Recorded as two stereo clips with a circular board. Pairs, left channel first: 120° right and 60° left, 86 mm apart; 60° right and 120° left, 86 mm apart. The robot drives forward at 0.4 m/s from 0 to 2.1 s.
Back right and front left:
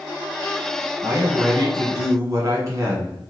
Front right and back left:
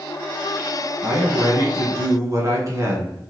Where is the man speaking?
75° left, 1.7 m; by 3.3 s 100° left, 1.7 m.